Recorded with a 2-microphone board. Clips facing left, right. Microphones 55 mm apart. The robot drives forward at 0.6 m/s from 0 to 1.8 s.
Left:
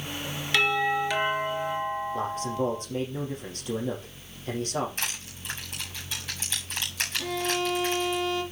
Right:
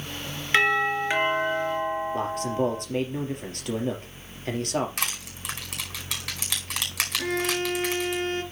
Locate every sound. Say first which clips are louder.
0.5 s a doorbell: right 3 dB; 35° right (ahead or behind), 2 m; by 2.8 s 25° right (ahead or behind), 2.5 m
2.1 s a man speaking: right 2 dB; 65° right (ahead or behind), 4 m
5.0 s crushing: right 3 dB; 70° right (ahead or behind), 5 m
7.2 s a violin: right 1 dB; 45° right (ahead or behind), 2 m